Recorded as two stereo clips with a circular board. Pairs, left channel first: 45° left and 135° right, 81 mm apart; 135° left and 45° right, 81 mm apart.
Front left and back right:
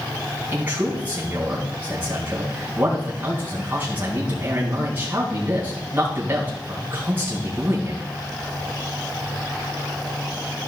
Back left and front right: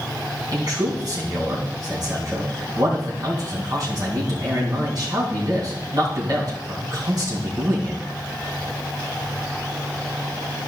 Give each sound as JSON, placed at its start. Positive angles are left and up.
{"t": 0.5, "sound": "a man speaking", "azimuth_deg": -70, "distance_m": 3.5}